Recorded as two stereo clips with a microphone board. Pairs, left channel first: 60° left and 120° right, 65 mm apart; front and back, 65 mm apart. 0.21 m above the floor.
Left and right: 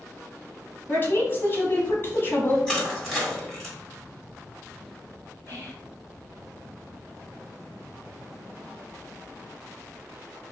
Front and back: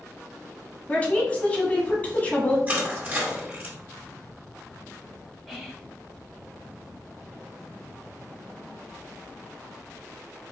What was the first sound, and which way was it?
A woman speaking, 50° left.